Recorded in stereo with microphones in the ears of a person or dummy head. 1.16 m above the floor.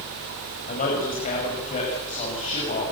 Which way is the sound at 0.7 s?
35° left (ahead or behind).